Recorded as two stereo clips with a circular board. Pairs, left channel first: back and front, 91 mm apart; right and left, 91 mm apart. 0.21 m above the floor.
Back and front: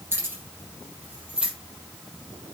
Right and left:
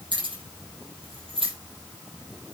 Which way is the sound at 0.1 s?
65° left.